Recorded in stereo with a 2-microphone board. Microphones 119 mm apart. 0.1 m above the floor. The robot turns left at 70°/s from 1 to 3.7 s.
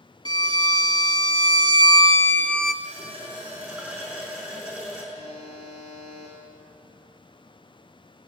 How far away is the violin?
About 0.6 m.